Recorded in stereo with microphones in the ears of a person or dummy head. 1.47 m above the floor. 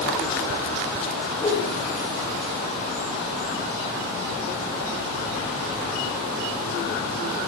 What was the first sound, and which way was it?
A whoosh, 15° left (ahead or behind).